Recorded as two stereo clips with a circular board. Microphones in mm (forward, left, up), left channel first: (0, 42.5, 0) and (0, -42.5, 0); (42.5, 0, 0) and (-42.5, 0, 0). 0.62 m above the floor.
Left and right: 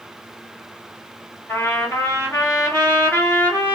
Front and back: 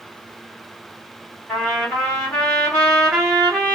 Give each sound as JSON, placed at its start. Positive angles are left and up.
{"t": 1.5, "sound": "a trumpet", "azimuth_deg": 55, "distance_m": 1.3}